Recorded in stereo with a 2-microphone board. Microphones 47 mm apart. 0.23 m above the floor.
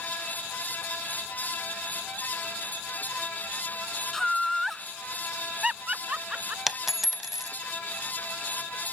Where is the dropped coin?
5° right (ahead or behind).